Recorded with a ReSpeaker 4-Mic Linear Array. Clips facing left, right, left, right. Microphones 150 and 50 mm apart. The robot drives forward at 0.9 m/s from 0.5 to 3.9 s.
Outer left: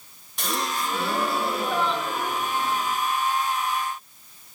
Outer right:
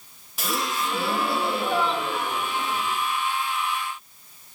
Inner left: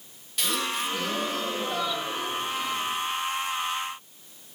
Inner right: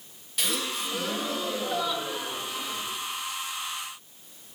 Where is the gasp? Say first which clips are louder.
Even, inner left 2 dB; 5° right (ahead or behind), 0.6 m; by 2.9 s centre (ahead or behind), 2.5 m.